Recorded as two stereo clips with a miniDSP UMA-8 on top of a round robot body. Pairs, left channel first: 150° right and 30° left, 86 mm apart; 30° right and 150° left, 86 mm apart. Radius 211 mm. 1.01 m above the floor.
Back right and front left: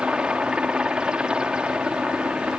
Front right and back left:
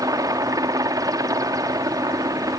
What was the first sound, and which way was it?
A helicopter, 110° left.